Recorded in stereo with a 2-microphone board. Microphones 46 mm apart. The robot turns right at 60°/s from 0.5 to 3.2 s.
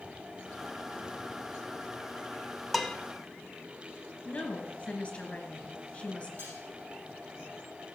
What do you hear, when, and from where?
2.7 s dishes clattering: centre (ahead or behind), 0.8 m; by 3.0 s 5° left (ahead or behind), 0.8 m
4.2 s a woman speaking: 25° left (ahead or behind), 2.5 m
6.4 s cutlery clinking: 50° right (ahead or behind), 5 m